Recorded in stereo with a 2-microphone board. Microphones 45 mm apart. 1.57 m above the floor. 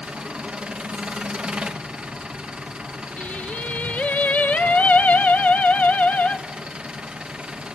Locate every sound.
0.0 s an engine running: 25° right (ahead or behind), 1.5 m
3.2 s singing: 35° left (ahead or behind), 1.2 m